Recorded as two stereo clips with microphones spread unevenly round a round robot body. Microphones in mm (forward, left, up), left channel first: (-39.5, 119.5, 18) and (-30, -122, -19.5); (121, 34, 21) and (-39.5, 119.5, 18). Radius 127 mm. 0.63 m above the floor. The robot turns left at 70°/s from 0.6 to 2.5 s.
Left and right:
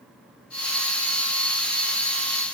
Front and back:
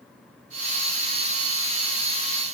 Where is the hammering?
I don't hear hammering.